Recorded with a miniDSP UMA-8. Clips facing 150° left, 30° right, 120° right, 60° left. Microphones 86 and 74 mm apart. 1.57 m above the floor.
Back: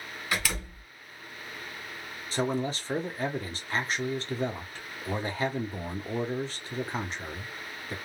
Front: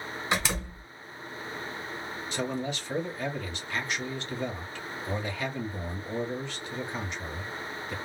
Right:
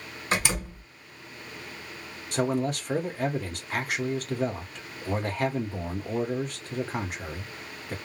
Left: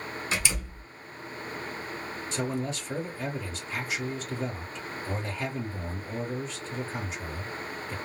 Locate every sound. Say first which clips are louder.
0.3 s a door slam: front 2 dB, right 6 dB; 90° right, 1.2 m
2.3 s a man speaking: back 4 dB, right 6 dB; 155° right, 1.2 m